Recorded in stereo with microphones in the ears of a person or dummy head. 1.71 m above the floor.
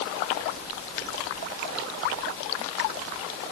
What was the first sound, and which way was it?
Only background noise.